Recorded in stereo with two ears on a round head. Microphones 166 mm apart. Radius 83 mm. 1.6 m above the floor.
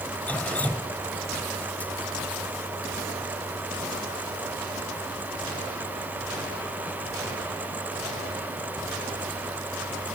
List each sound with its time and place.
0.3 s dripping: 10° left (ahead or behind)